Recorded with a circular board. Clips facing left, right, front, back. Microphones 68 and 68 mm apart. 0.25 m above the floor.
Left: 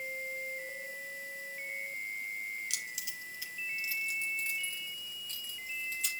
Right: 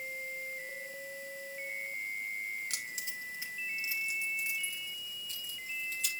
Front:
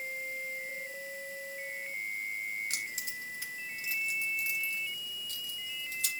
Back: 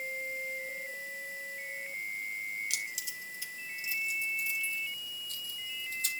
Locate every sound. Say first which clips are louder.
2.7 s keys jangling: right 1 dB, front 1 dB; 45° right, 2.0 m; by 6.1 s straight ahead, 4 m